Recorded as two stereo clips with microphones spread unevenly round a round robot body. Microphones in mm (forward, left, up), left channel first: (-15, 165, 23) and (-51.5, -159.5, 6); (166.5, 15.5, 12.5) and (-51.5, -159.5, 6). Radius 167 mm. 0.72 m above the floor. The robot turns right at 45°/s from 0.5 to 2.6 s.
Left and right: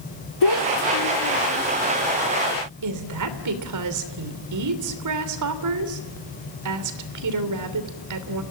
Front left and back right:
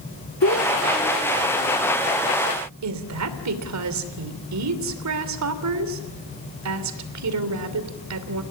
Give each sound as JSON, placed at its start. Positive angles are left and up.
{"t": 0.4, "sound": "a child speaking", "azimuth_deg": 90, "distance_m": 1.7}
{"t": 2.8, "sound": "a woman speaking", "azimuth_deg": -125, "distance_m": 3.0}